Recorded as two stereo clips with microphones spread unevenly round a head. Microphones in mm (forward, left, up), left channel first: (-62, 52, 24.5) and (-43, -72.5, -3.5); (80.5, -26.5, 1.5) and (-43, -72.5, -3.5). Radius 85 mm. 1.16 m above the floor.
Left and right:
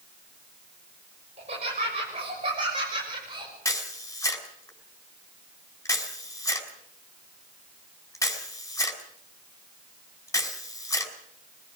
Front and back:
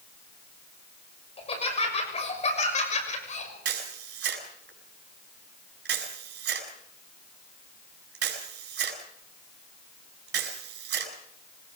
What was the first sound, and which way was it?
Laughter, 25° right.